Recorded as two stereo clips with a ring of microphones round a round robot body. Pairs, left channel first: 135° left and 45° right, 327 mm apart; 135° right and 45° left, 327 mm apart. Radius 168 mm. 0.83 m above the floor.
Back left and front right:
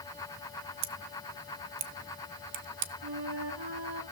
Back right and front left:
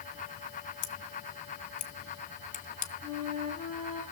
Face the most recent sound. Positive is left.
turn(degrees=-20)